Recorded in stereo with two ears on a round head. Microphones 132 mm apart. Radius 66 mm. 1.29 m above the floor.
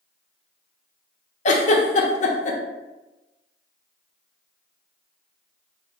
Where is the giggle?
50° left (ahead or behind), 0.8 m.